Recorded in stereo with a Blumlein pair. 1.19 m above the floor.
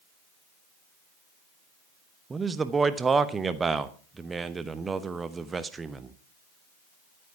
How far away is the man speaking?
About 1.0 m.